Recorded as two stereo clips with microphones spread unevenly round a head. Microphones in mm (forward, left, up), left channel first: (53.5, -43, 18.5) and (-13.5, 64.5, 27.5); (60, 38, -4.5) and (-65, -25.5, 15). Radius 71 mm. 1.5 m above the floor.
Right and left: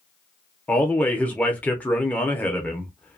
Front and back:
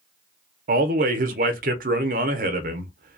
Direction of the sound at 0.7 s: 140° right.